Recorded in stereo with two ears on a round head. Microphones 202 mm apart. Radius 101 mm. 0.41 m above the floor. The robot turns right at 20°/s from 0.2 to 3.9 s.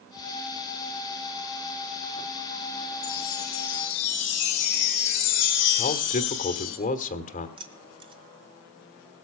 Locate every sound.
3.0 s a chime: 85° left, 2 m; by 6.8 s 75° left (ahead or behind), 2 m
5.8 s a man speaking: 35° left (ahead or behind), 1.3 m
7.6 s keys jangling: 25° right (ahead or behind), 1.6 m